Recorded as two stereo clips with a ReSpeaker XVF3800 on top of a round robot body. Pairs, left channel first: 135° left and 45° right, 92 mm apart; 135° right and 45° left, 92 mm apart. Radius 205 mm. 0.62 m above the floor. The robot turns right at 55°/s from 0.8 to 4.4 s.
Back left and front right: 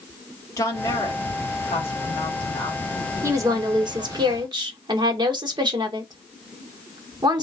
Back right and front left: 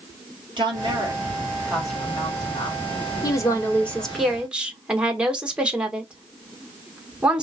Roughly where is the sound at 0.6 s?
Left.